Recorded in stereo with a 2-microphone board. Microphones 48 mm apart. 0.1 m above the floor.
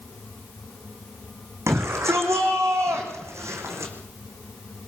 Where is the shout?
75° right (ahead or behind), 7.5 m.